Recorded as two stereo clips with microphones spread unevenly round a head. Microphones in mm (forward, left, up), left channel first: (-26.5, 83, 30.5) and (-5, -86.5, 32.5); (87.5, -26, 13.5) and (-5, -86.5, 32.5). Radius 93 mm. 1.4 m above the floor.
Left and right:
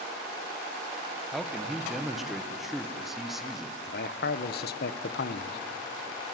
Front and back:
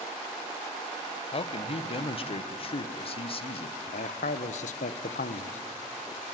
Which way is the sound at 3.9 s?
60° left.